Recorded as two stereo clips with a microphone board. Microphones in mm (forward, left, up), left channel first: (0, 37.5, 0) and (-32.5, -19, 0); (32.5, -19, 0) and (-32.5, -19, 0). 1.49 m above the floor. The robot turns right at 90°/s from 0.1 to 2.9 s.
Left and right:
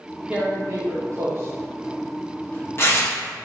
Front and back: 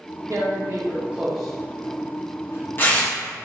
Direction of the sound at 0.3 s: 170° left.